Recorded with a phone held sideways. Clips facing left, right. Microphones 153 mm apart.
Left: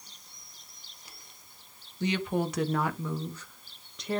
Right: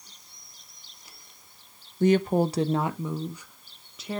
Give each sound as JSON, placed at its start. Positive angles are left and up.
{"t": 2.0, "sound": "a woman speaking", "side_deg": -50, "distance_m": 0.9}